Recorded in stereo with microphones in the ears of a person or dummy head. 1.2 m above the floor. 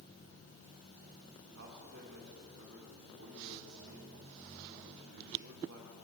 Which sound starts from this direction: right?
A man speaking, at 1.5 s.